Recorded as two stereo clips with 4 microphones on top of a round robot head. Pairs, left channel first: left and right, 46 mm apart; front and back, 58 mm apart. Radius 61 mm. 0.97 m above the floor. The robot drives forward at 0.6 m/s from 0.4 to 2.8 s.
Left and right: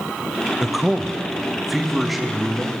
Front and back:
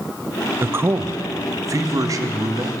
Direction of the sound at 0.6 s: 170° right.